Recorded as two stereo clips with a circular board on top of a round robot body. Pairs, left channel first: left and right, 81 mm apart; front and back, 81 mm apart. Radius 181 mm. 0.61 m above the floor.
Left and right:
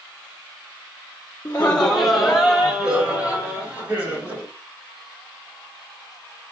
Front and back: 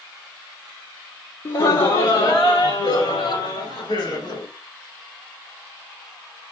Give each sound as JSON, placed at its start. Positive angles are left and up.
{"t": 1.4, "sound": "laughter", "azimuth_deg": 25, "distance_m": 1.4}